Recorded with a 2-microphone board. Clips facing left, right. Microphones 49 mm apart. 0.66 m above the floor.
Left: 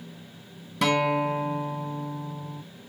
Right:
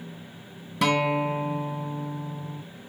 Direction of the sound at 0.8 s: Centre (ahead or behind).